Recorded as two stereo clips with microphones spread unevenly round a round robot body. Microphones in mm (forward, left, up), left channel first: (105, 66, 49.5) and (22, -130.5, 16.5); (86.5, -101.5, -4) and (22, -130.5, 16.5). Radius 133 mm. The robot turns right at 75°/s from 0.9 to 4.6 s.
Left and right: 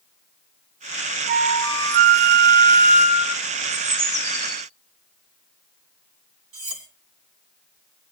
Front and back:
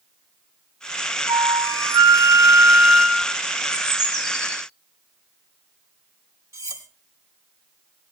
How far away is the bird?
About 6 m.